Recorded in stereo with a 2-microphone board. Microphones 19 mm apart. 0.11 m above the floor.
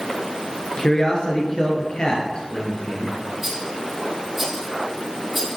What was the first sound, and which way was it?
A man speaking, 35° left (ahead or behind).